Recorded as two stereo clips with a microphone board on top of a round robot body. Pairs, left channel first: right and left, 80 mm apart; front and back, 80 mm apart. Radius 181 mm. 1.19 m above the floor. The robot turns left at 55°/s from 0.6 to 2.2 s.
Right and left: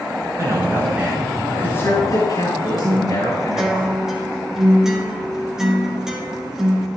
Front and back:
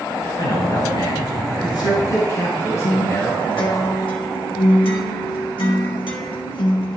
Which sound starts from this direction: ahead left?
A man speaking, at 0.4 s.